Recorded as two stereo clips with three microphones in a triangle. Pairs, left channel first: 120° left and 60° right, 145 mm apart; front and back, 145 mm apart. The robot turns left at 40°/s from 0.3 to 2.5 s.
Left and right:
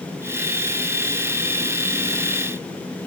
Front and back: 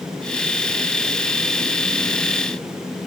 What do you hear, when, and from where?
Only background noise.